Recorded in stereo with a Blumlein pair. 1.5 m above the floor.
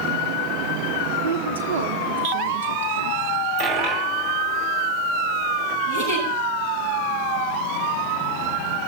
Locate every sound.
1.2 s a woman speaking: 65° right, 1.1 m
3.6 s a dropped coin: 35° right, 3.5 m
5.9 s a giggle: 55° right, 8.5 m